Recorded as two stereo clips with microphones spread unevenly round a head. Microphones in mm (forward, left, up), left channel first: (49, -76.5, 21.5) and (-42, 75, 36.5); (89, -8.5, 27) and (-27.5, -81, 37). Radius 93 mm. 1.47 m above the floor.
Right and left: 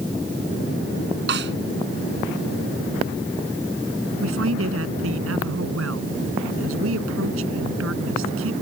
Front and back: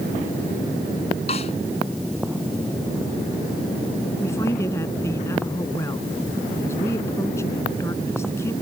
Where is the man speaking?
110° left.